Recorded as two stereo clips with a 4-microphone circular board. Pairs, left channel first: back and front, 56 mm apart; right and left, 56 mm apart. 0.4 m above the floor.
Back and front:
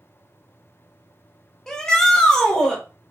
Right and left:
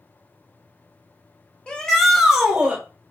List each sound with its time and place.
1.7 s a shout: 120° right, 1.1 m; by 2.8 s 120° left, 1.3 m